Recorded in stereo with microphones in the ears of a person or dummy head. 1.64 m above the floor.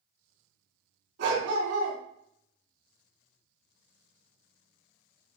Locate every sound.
1.2 s a dog barking: 70° right (ahead or behind), 3.5 m